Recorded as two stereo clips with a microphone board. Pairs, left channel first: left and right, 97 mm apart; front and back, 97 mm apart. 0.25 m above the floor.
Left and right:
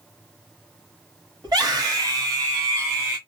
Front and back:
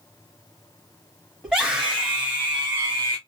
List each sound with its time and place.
1.4 s a scream: 95° right, 1.8 m; by 3.2 s 140° right, 1.5 m